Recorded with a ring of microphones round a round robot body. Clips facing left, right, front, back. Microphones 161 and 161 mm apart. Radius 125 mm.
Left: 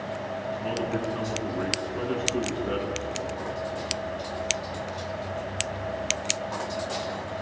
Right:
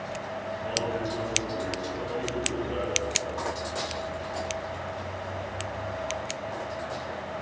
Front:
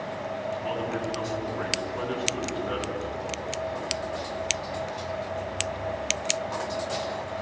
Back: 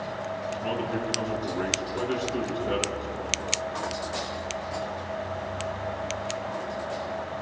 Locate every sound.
0.5 s a man speaking: 110° left, 9.5 m